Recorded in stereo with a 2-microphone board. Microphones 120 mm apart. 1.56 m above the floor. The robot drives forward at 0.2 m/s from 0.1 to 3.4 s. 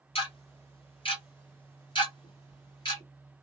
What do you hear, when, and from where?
0.1 s ticking: 50° left (ahead or behind), 1.6 m; by 3.0 s 40° left (ahead or behind), 1.9 m